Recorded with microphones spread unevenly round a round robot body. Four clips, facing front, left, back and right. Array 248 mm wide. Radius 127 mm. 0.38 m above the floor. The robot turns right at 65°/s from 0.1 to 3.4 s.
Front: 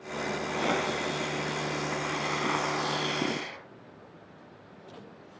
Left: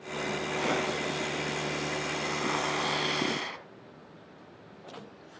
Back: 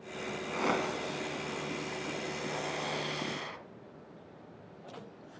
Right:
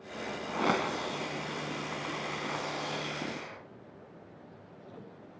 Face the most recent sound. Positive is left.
turn(degrees=85)